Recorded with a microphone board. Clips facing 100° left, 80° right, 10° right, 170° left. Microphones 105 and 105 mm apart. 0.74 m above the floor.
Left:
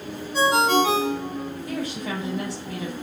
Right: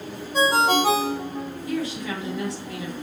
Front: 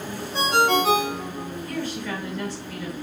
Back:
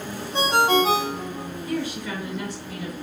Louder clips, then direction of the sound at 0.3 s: Left 1 dB, back 1 dB; 125° right.